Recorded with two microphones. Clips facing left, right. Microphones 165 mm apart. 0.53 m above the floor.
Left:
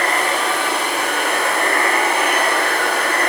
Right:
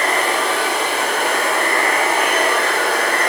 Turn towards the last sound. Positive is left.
turn(degrees=-70)  # may be behind; listen again after turning